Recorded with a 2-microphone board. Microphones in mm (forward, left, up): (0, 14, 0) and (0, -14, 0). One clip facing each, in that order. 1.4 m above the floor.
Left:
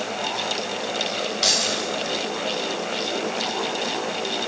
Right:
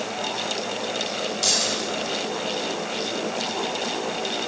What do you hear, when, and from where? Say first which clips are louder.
1.4 s keys jangling: left 2 dB; 40° left (ahead or behind), 4.5 m